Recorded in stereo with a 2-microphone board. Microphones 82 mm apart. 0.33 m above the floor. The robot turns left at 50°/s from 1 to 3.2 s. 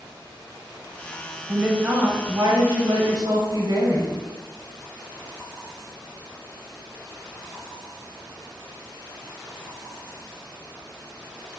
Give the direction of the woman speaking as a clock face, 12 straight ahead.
12 o'clock.